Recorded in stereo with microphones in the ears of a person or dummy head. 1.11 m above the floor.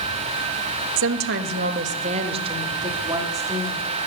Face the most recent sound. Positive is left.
turn(degrees=-15)  # may be behind; listen again after turning